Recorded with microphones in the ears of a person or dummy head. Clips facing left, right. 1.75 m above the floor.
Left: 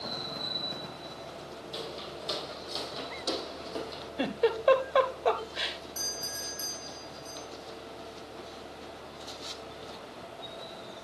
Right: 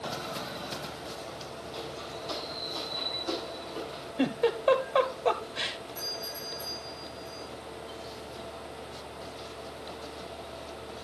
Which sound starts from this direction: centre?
A giggle, at 4.2 s.